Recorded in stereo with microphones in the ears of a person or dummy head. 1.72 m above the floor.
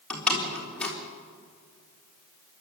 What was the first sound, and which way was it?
A door slam, 10° left (ahead or behind).